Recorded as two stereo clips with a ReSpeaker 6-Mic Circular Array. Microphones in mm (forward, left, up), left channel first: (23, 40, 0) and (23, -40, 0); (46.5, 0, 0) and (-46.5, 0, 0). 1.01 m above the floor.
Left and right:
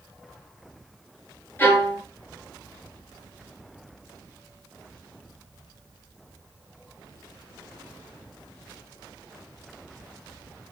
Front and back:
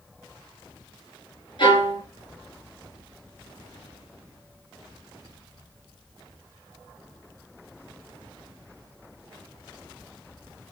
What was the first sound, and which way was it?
A violin, 30° left.